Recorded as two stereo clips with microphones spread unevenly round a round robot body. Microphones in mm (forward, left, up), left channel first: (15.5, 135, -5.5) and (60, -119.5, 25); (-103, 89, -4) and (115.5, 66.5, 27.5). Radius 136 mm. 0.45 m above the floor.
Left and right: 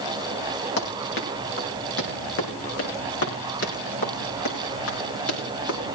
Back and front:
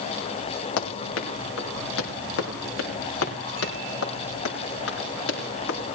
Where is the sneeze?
No sneeze in this recording.